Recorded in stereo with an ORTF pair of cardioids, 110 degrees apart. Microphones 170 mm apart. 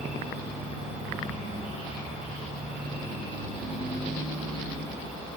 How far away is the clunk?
I don't hear a clunk.